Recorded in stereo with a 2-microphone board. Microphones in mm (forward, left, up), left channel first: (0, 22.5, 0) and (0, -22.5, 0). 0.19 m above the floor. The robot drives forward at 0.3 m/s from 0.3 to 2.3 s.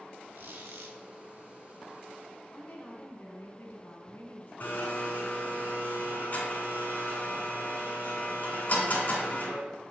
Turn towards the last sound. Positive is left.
turn(degrees=45)  # may be behind; listen again after turning